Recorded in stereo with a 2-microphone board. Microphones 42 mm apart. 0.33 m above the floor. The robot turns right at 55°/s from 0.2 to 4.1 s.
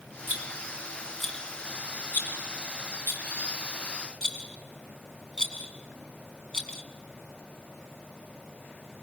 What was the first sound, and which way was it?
A rattle, 45° right (ahead or behind).